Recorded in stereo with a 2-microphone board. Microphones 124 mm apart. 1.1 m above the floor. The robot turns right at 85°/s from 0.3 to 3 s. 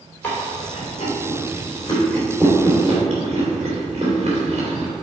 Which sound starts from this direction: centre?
Chewing, at 0.2 s.